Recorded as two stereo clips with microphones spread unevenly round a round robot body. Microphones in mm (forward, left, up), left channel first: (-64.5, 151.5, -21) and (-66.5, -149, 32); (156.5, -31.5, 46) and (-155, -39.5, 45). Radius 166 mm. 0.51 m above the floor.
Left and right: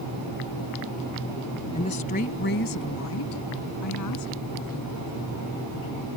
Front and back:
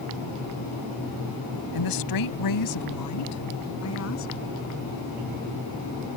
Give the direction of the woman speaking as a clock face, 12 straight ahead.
11 o'clock.